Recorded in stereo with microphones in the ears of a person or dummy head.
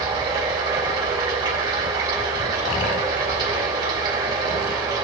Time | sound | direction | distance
0.0 | running water | 20° right (ahead or behind) | 6 m